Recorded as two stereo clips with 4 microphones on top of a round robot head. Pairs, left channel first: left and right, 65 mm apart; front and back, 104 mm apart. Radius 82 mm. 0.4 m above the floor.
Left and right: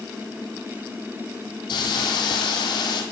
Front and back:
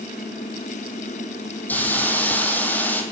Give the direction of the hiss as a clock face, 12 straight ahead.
10 o'clock.